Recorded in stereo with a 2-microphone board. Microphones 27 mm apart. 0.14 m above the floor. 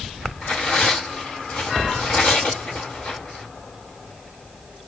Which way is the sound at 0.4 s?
45° left (ahead or behind).